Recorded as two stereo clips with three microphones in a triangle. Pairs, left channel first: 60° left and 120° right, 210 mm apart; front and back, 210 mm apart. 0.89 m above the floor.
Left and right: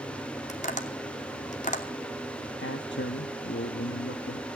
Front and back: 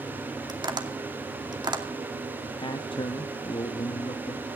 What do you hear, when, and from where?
0.5 s tapping: 110° left, 2.5 m
2.6 s a man speaking: 65° left, 1.3 m